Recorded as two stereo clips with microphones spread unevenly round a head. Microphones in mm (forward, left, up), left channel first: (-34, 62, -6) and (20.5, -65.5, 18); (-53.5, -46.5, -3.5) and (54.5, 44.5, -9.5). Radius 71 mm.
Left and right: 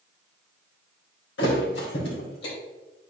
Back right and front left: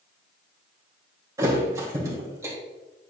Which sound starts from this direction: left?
A thud, at 1.4 s.